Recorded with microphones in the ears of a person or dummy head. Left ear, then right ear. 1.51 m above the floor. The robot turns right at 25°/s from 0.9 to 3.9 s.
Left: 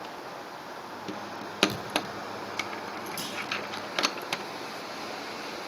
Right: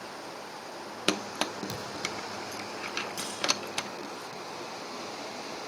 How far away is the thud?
About 6.5 m.